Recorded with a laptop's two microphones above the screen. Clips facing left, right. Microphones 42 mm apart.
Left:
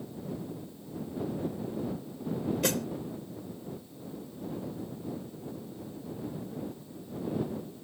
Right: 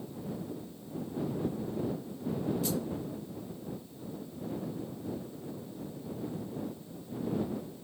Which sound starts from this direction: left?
A snare drum, at 2.6 s.